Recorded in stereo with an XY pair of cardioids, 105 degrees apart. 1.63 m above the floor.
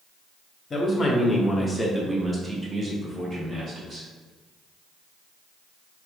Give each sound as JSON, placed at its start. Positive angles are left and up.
{"t": 0.7, "sound": "a man speaking", "azimuth_deg": 35, "distance_m": 1.1}